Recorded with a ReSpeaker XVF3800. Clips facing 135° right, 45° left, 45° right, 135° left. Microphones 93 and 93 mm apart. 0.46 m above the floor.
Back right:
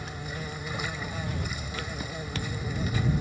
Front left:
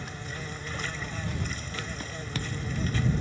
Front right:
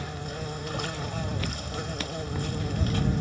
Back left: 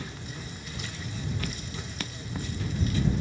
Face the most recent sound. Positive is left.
turn(degrees=-55)